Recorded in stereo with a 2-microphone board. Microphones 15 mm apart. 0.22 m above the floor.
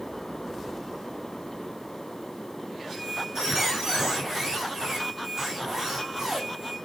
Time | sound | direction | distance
2.9 | a squeak | 35° right (ahead or behind) | 7 m